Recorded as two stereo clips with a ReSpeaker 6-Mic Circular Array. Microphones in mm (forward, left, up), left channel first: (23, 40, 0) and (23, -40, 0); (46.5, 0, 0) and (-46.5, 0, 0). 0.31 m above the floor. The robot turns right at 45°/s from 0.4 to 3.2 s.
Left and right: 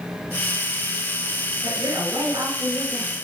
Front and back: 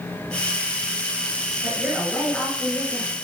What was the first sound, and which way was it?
A woman speaking, 100° right.